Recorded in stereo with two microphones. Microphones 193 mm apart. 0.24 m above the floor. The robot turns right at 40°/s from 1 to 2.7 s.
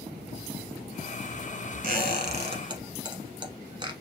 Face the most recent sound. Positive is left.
turn(degrees=-25)  # may be behind; listen again after turning